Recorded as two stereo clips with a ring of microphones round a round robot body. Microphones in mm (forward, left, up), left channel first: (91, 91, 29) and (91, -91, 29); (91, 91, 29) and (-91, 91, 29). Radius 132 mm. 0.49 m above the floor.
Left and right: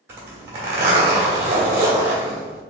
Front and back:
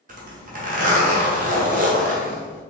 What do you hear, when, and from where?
0.1 s a zipper: 165° right, 1.0 m